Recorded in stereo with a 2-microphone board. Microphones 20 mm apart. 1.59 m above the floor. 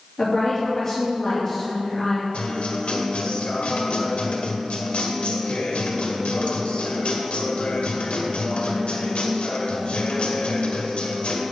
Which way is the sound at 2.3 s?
60° left (ahead or behind).